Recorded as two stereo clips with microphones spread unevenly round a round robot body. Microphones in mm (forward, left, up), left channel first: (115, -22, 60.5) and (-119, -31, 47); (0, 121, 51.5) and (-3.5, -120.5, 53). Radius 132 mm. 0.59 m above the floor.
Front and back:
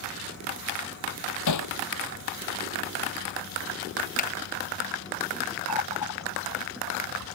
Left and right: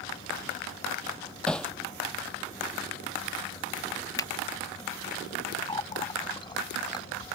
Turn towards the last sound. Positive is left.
turn(degrees=15)